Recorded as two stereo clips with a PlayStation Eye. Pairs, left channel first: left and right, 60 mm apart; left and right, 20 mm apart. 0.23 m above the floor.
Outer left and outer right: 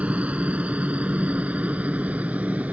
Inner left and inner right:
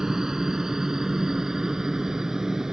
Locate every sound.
0.0 s a helicopter: 20° right (ahead or behind); by 2.7 s 25° right (ahead or behind)